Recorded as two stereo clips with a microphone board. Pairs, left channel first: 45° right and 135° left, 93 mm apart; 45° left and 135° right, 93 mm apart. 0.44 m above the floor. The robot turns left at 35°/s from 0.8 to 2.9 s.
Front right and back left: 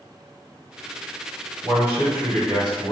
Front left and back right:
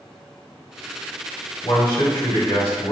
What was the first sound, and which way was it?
A man speaking, 85° left.